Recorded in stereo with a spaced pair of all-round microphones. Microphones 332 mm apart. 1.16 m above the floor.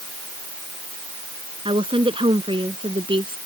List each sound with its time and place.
1.6 s a woman speaking: 15° right (ahead or behind)